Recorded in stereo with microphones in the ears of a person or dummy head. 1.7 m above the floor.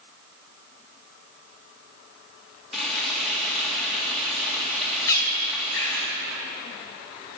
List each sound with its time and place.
2.7 s frying: centre (ahead or behind), 2 m
5.1 s a bird: 15° left (ahead or behind), 2 m